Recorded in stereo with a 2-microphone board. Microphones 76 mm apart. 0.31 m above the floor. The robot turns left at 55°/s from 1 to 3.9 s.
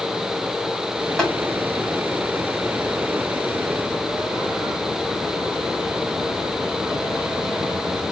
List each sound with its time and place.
1.2 s tapping: 5° left (ahead or behind), 1.8 m; by 1.3 s centre (ahead or behind), 1.8 m